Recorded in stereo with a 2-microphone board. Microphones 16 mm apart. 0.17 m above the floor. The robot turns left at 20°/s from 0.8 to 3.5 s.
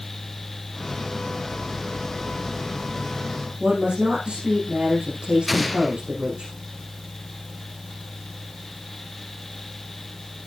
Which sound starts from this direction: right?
A woman speaking, at 3.6 s.